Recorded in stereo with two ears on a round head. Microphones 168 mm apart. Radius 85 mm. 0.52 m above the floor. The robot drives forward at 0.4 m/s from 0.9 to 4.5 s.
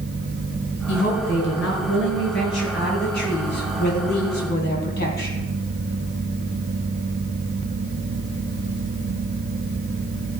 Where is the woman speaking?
70° left (ahead or behind), 4.5 m; by 5.5 s 60° left (ahead or behind), 5 m.